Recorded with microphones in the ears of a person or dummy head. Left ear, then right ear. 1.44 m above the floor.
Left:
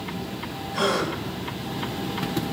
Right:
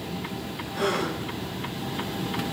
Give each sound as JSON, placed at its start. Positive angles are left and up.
{"t": 0.7, "sound": "a gasp", "side_deg": 70, "distance_m": 1.6}